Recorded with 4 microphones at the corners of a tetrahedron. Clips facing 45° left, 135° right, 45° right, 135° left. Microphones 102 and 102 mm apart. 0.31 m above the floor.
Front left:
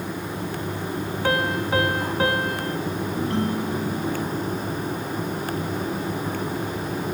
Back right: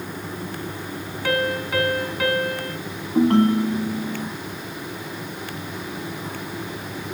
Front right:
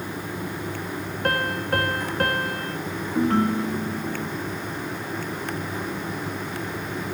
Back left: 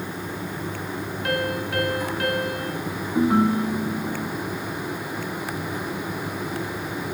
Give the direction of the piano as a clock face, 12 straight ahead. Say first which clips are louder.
Back right 1 dB, front right 1 dB; 12 o'clock.